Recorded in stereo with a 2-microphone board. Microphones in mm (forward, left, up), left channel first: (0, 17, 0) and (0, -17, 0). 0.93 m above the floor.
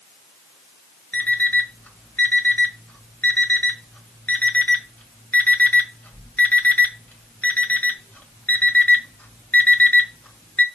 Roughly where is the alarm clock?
Left.